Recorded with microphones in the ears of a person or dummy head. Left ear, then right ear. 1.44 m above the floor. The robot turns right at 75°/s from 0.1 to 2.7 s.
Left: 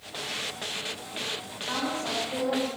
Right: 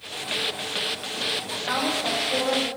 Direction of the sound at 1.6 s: 145° right.